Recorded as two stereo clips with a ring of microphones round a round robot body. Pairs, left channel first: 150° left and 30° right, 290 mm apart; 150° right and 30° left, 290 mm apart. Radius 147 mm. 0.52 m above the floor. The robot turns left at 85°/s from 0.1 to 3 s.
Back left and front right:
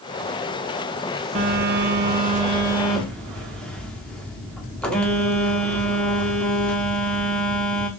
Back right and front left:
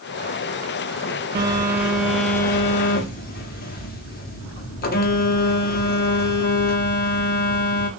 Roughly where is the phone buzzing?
Ahead.